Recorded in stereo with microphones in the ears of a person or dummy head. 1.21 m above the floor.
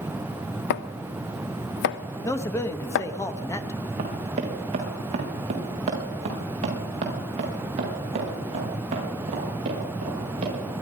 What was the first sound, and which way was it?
Chopping, 65° left (ahead or behind).